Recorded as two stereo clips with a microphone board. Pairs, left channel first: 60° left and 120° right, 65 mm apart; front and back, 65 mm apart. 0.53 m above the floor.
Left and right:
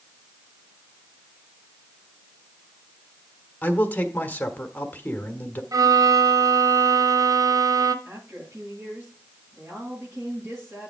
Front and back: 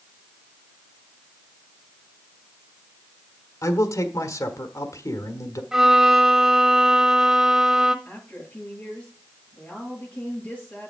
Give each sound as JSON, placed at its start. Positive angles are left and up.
{"t": 3.6, "sound": "a man speaking", "azimuth_deg": 0, "distance_m": 1.3}
{"t": 5.7, "sound": "a violin", "azimuth_deg": -95, "distance_m": 0.9}
{"t": 8.1, "sound": "a woman speaking", "azimuth_deg": -60, "distance_m": 8.0}